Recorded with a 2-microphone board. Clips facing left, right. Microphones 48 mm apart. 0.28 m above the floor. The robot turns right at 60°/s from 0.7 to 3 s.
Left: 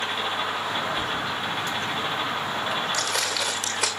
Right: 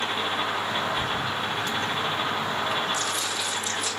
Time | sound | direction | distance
1.0 | a thud | 45° left (ahead or behind) | 5 m
2.9 | footsteps | 80° left | 1.5 m